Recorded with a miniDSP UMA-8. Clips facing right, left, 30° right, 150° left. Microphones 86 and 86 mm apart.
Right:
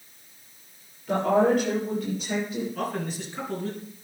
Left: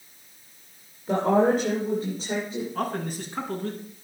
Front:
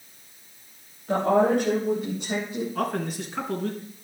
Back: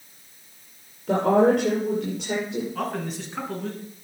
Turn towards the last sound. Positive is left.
turn(degrees=55)